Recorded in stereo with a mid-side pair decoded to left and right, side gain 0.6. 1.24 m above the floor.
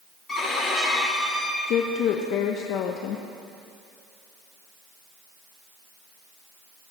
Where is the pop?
No pop in this recording.